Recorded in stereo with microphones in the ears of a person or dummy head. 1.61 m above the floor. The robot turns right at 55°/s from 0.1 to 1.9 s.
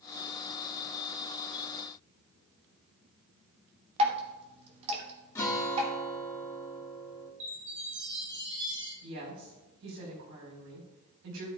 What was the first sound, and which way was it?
Dripping, 30° right (ahead or behind).